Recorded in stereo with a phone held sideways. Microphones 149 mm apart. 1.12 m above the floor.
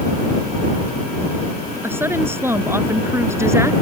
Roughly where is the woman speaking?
Centre.